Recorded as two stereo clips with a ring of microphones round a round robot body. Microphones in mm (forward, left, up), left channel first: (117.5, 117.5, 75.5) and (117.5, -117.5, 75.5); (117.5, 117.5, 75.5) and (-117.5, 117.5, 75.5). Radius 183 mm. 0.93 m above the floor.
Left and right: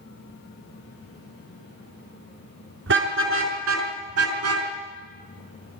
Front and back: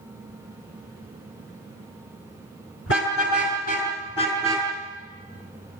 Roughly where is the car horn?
Ahead right.